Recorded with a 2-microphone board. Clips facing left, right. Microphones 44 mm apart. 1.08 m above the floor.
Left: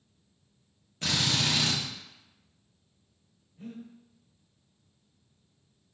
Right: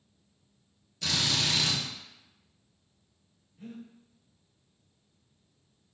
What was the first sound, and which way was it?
A drill, 40° left (ahead or behind).